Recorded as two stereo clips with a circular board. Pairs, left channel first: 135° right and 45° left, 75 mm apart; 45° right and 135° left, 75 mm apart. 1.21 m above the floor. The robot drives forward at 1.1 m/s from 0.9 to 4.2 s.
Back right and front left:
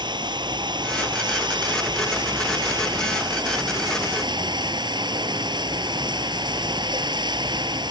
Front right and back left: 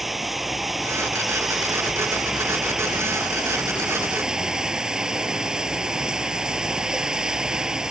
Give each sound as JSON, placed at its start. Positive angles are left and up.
{"t": 0.0, "sound": "running water", "azimuth_deg": 50}